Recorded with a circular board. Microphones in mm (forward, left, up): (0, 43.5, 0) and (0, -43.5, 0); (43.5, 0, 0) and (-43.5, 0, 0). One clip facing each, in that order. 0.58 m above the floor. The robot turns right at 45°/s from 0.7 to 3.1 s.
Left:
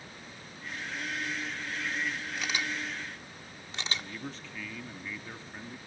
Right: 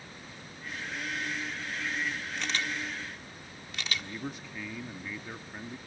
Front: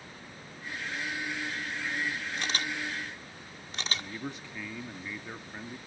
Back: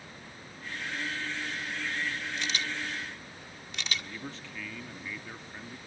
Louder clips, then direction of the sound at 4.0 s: Right 2 dB, front 2 dB; 45° right.